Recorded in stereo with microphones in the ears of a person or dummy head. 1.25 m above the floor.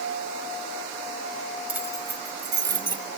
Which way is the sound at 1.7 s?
10° right (ahead or behind).